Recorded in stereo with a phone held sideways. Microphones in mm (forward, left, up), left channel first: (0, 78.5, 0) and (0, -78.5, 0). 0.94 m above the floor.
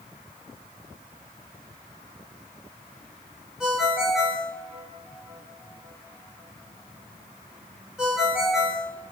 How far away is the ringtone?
About 1.9 m.